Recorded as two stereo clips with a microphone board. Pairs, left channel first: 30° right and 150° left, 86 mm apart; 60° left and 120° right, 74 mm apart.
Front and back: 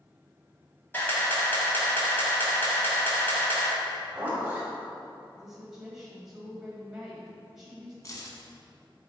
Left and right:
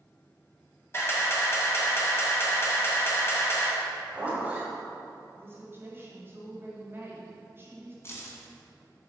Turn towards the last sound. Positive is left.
turn(degrees=15)